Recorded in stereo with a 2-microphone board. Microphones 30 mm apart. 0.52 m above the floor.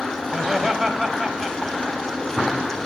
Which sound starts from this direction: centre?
Laughter, at 0.3 s.